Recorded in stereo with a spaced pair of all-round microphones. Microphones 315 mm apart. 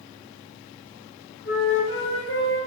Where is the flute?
40° left (ahead or behind), 3 m.